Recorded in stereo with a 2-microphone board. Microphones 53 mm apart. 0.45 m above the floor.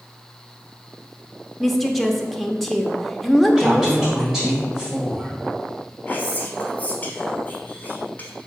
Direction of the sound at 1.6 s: Centre (ahead or behind).